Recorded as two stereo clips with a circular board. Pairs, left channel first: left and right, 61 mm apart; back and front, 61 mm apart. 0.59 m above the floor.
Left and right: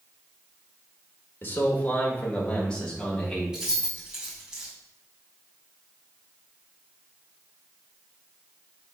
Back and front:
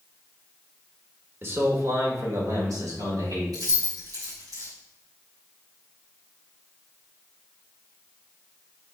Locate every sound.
1.4 s a man speaking: 45° left, 1.6 m; by 3.4 s 10° left, 4 m
3.5 s keys jangling: 15° right, 3.5 m